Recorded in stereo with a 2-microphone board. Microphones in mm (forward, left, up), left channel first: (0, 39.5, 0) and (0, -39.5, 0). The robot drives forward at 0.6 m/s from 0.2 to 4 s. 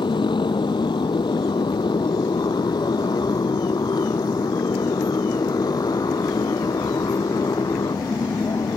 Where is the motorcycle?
80° left; by 8.8 s 55° left (ahead or behind).